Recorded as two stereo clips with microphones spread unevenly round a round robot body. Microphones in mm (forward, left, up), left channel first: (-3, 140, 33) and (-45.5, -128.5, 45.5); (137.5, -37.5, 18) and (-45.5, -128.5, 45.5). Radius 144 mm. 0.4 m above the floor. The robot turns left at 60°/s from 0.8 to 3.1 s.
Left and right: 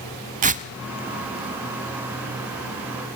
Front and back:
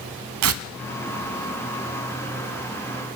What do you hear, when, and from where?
0.4 s tearing paper: 160° right, 0.6 m